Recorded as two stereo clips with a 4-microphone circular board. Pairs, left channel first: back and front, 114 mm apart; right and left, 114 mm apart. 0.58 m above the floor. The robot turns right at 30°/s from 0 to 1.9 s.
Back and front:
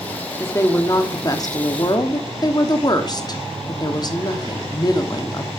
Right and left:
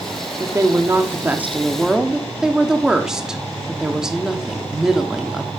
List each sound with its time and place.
0.4 s a woman speaking: 125° left, 1.4 m; by 5.5 s 170° left, 1.4 m